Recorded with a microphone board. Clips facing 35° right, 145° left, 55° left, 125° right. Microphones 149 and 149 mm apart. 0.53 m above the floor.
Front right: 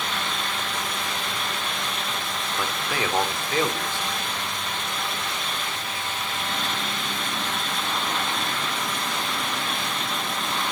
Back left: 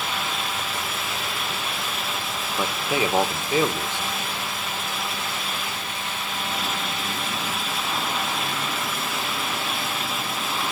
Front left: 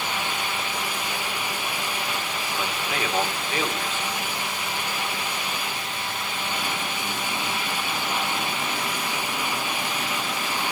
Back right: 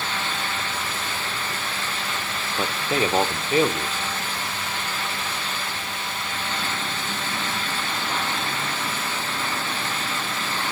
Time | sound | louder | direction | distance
2.6 | a man speaking | back left 5 dB, back right 7 dB | 150° right | 1.2 m